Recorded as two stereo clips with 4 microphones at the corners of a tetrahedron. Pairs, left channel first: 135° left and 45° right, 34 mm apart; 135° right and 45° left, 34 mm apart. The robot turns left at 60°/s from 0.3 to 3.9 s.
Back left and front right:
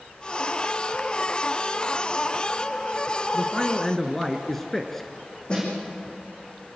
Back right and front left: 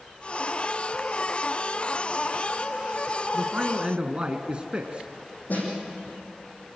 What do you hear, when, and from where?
3.3 s a man speaking: 95° left, 1.3 m; by 5.1 s 60° left, 1.3 m
5.5 s a snare drum: 165° right, 8 m